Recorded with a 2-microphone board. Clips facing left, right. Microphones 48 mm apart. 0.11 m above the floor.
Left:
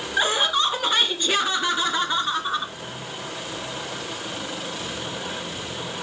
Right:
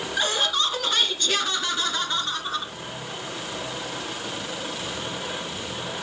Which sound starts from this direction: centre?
Laughter, at 0.2 s.